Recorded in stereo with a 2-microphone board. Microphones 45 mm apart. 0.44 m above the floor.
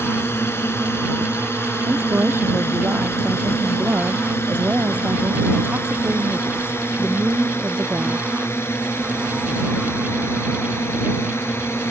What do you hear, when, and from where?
0.0 s a drone: 70° left (ahead or behind); by 11.9 s 75° left (ahead or behind)
1.9 s a woman speaking: 60° right (ahead or behind)